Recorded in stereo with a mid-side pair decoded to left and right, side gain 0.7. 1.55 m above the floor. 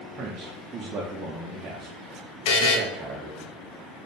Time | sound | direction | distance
0.2 | a man speaking | 40° right | 0.9 m
2.5 | a buzzer | 70° left | 0.9 m